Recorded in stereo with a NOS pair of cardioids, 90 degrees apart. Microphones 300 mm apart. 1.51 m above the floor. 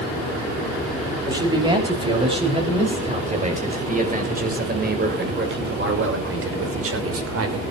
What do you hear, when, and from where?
1.3 s a man speaking: 15° right, 8.5 m; by 7.6 s 55° right, 5 m